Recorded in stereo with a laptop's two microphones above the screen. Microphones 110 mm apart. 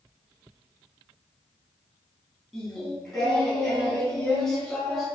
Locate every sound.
2.5 s singing: 5° left (ahead or behind), 3 m